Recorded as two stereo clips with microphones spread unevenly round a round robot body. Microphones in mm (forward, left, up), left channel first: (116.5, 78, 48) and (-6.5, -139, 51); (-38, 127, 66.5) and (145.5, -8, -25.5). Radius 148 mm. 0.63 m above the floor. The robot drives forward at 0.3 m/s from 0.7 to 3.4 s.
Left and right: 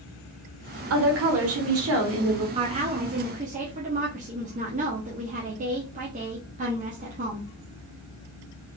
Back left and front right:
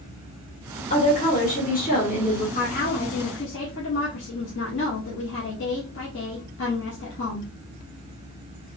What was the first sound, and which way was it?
A woman speaking, 140° right.